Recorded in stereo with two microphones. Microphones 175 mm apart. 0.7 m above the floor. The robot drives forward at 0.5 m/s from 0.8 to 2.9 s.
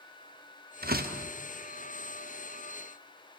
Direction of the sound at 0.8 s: 60° right (ahead or behind).